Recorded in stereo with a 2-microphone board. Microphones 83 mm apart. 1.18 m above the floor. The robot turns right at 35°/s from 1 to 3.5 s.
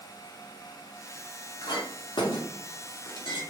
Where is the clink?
55° left (ahead or behind), 0.6 m; by 3.4 s 60° left (ahead or behind), 0.6 m.